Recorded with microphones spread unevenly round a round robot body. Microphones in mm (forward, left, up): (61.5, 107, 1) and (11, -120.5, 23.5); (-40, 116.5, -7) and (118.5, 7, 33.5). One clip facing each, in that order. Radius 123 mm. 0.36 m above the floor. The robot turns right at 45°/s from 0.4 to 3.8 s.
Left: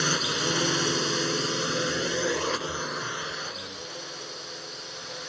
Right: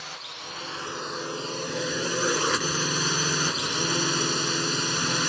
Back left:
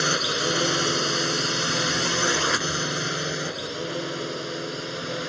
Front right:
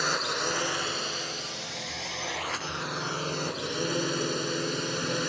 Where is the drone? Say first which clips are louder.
Left 17 dB, back left 6 dB; 95° left; by 5.3 s 110° right.